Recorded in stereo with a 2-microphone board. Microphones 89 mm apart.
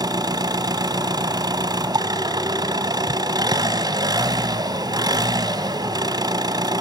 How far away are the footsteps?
I don't hear footsteps.